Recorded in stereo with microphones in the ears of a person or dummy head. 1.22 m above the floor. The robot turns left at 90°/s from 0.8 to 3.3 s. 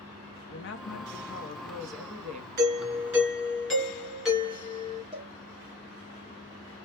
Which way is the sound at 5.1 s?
25° right (ahead or behind).